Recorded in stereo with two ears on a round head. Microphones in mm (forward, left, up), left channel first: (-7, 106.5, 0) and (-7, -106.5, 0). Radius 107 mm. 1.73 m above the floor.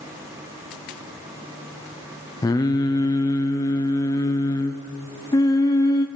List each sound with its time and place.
2.4 s singing: 15° left (ahead or behind), 0.7 m